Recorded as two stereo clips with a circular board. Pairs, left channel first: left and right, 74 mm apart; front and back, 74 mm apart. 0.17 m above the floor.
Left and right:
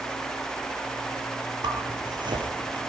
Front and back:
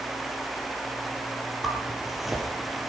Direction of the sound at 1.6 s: 90° right.